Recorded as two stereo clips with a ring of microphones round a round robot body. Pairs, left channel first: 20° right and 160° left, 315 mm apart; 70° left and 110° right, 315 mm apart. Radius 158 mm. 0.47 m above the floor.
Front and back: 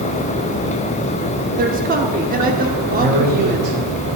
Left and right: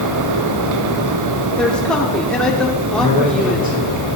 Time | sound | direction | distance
1.6 | a man speaking | 150° left | 0.9 m
3.0 | a man speaking | 175° right | 4.5 m